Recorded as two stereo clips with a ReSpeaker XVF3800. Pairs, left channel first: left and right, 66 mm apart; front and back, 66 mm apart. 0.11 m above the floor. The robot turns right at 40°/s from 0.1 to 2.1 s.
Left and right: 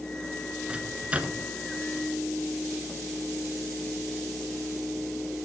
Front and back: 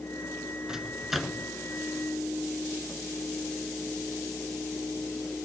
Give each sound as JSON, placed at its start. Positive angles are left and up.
{"t": 0.7, "sound": "a microwave", "azimuth_deg": -115, "distance_m": 1.1}